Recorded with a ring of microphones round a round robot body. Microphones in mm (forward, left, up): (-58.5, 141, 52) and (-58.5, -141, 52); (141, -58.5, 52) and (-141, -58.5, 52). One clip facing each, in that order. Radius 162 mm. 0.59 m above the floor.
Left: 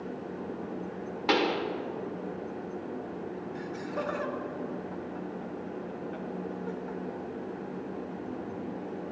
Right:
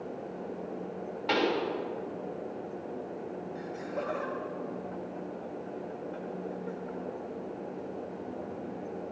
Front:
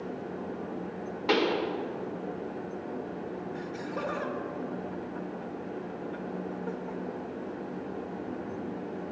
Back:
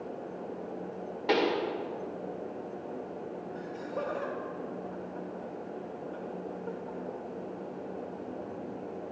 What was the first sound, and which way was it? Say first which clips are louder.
A pop: left 1 dB, front 1 dB; 80° left.